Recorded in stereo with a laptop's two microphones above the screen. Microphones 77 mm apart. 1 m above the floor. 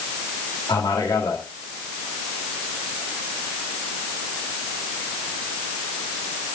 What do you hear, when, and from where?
0.7 s a man speaking: 70° left (ahead or behind), 2 m